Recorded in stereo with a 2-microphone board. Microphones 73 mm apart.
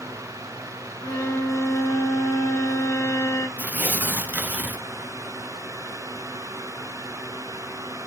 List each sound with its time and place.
1.0 s a violin: 50° left (ahead or behind), 1.4 m
3.6 s tearing paper: 20° right (ahead or behind), 0.6 m